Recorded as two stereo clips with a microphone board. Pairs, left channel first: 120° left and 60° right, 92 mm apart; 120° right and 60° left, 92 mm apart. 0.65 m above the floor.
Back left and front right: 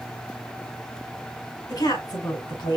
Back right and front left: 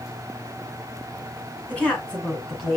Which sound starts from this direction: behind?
A woman speaking, at 1.7 s.